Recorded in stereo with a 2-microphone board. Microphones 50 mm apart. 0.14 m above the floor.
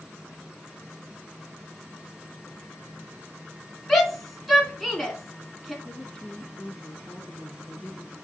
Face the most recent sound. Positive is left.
turn(degrees=20)  # may be behind; listen again after turning